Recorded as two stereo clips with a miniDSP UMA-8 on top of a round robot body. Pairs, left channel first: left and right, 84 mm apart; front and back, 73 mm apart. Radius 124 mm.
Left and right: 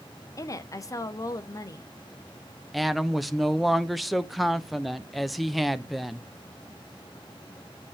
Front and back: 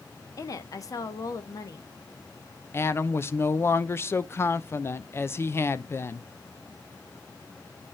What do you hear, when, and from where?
0.4 s a woman speaking: 40° left, 1.3 m
2.7 s a woman speaking: straight ahead, 0.8 m